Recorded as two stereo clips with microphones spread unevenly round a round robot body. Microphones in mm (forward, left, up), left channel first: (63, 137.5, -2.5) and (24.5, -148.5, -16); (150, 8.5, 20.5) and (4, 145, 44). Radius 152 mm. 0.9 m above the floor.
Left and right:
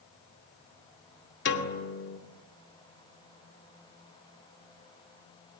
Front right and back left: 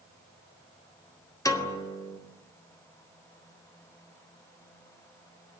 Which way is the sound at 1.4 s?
30° left.